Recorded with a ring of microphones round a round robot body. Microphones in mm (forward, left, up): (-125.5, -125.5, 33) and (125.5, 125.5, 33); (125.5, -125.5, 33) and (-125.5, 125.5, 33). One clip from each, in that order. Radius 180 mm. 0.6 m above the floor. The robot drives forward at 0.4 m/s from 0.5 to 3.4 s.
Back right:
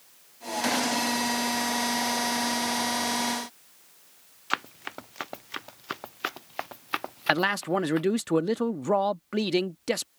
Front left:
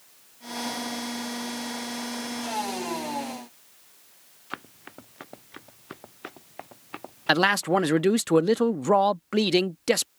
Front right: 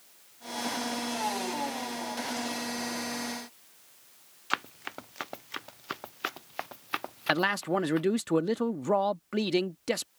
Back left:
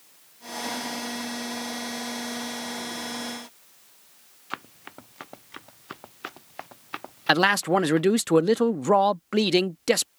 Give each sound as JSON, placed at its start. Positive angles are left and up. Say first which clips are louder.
{"t": 4.5, "sound": "running footsteps", "louder": "back right 9 dB, front right 5 dB", "azimuth_deg": -100}
{"t": 7.3, "sound": "a man speaking", "louder": "front left 3 dB, back left 7 dB", "azimuth_deg": 100}